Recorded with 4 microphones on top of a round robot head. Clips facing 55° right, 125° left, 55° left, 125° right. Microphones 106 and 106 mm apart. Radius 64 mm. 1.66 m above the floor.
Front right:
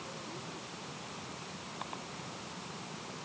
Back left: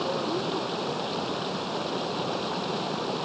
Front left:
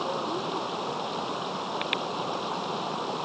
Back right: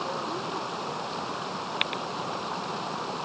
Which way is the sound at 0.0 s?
130° left.